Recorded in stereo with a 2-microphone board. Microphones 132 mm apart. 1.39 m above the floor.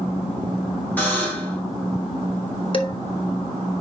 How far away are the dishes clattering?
About 1.0 m.